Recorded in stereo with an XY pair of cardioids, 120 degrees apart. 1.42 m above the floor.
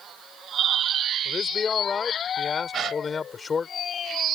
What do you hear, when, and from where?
1.2 s a man speaking: 35° left
2.7 s a gasp: 50° right